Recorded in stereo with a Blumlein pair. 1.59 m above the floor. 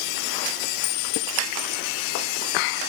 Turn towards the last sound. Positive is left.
turn(degrees=45)